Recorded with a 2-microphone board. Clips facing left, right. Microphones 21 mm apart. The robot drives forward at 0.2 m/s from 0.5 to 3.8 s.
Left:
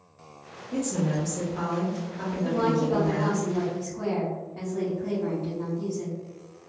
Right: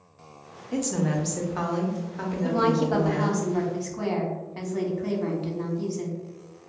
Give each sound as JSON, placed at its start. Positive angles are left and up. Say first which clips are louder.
{"t": 0.7, "sound": "a woman speaking", "louder": "right 1 dB", "side_deg": -60, "distance_m": 0.6}
{"t": 2.4, "sound": "a woman speaking", "louder": "right 2 dB", "side_deg": -55, "distance_m": 0.6}